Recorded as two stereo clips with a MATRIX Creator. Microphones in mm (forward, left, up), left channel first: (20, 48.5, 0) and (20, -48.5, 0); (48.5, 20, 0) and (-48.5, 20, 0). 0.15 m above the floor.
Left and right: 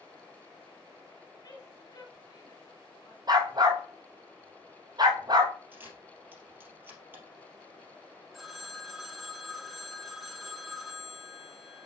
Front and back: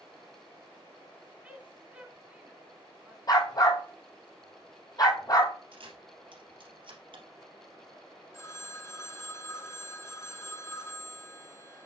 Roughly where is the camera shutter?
Behind right.